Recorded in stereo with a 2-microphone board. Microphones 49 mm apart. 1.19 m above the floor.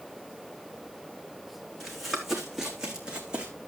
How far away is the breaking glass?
I don't hear breaking glass.